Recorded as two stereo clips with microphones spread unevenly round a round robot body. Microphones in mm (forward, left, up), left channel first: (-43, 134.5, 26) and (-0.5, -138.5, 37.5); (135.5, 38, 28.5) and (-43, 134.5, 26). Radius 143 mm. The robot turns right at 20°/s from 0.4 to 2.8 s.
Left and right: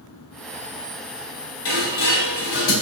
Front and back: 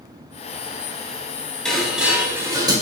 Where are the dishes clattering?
60° left, 1.1 m; by 2.7 s 80° left, 1.1 m.